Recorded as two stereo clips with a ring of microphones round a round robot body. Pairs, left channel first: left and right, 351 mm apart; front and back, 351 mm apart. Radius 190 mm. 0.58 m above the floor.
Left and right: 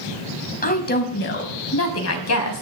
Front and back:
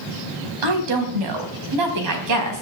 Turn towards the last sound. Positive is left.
turn(degrees=130)